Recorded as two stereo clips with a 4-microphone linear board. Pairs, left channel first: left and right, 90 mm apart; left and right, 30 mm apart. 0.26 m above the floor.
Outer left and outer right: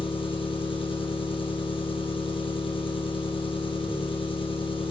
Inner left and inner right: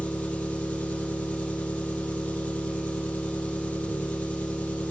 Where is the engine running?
70° left (ahead or behind), 3 m.